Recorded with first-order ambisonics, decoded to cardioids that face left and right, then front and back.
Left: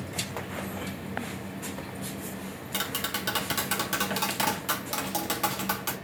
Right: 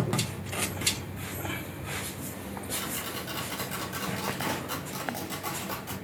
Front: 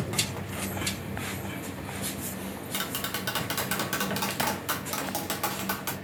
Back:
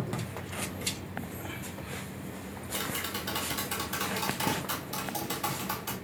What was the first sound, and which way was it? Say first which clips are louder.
Tapping: left 5 dB, front 1 dB; 50° left.